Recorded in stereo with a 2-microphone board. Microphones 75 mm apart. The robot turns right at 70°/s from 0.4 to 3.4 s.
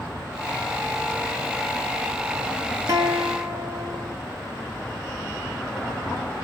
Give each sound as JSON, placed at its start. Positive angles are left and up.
{"t": 2.9, "sound": "a guitar", "azimuth_deg": -120, "distance_m": 1.0}